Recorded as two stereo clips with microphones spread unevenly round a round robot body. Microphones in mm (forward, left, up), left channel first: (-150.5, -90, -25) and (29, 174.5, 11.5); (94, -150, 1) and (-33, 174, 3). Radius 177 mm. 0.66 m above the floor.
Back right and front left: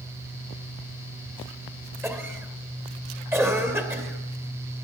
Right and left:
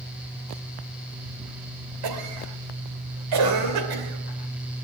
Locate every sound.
2.0 s a cough: 140° left, 2.5 m